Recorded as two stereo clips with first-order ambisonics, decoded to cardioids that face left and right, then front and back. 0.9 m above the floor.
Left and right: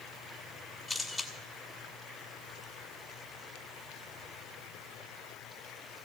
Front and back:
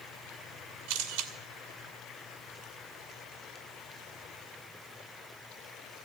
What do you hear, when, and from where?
0.9 s a camera shutter: straight behind, 1.7 m